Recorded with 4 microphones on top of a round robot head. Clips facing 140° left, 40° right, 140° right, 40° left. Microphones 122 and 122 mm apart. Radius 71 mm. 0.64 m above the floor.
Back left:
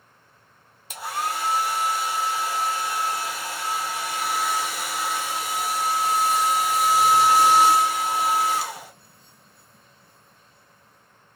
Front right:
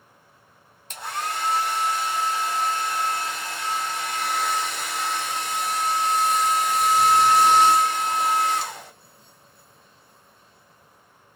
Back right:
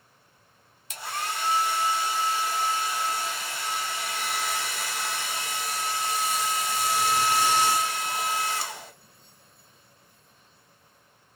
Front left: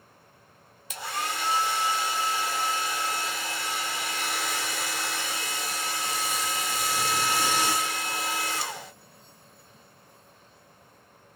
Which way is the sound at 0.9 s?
55° left.